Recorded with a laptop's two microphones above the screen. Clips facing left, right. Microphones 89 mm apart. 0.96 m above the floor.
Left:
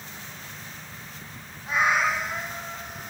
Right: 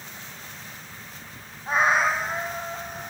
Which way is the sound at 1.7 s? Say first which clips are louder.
Right 2 dB; 35° right (ahead or behind).